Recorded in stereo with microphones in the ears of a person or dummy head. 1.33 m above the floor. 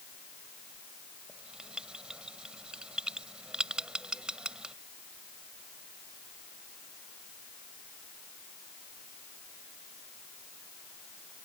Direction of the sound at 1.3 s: 5° right (ahead or behind).